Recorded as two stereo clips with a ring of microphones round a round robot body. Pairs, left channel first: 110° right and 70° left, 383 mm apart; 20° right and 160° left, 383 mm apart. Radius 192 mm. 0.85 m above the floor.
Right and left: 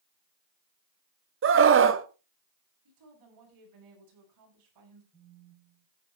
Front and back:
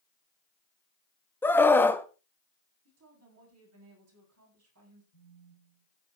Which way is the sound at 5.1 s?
30° right.